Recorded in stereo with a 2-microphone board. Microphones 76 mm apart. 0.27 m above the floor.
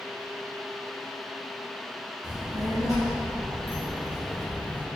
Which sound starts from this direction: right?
A child speaking, at 2.2 s.